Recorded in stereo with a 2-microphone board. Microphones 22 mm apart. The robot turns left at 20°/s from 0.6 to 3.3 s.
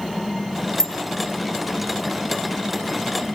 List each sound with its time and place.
0.8 s a bicycle bell: 25° left (ahead or behind), 6 m